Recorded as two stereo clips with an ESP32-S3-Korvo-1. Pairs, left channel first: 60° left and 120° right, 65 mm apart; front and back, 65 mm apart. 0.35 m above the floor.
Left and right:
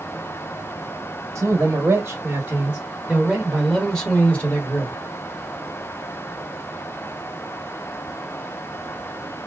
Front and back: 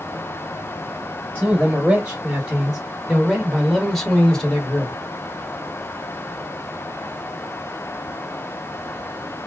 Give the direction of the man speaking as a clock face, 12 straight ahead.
4 o'clock.